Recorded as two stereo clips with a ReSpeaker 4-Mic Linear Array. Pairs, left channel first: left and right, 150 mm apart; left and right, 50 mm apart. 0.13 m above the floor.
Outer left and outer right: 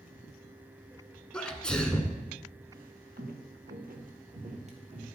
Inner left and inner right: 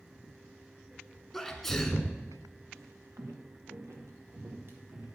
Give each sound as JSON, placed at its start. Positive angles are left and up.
{"t": 1.3, "sound": "a sneeze", "side_deg": 5, "distance_m": 1.2}
{"t": 2.7, "sound": "footsteps", "side_deg": -75, "distance_m": 2.0}